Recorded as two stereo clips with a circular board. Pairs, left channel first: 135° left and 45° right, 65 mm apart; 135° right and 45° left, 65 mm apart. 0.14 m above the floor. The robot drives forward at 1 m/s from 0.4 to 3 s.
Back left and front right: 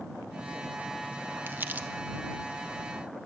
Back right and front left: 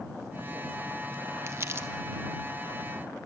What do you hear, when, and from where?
1.5 s crumpling: 5° left, 0.8 m; by 1.9 s 15° left, 0.5 m